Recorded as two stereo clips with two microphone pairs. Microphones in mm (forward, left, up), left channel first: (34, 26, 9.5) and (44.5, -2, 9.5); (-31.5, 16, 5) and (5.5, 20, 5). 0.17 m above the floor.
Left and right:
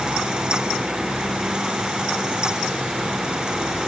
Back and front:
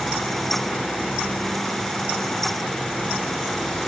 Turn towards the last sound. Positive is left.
No sound to turn to.